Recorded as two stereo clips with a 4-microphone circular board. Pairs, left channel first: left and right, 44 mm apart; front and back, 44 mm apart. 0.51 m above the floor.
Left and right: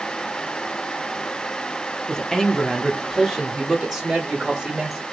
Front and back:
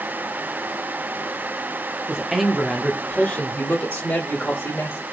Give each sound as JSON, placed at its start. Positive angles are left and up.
{"t": 2.1, "sound": "a man speaking", "azimuth_deg": 140, "distance_m": 0.7}